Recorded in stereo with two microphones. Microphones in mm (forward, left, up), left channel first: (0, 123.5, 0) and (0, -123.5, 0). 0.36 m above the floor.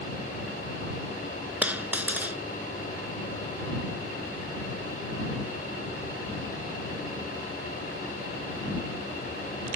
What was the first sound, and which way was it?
A dropped coin, 5° right (ahead or behind).